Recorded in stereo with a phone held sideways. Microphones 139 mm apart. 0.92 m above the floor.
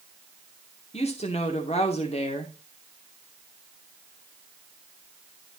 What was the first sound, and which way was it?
A woman speaking, 50° left (ahead or behind).